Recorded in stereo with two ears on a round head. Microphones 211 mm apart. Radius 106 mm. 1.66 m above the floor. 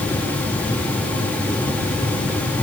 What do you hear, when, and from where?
Only background noise.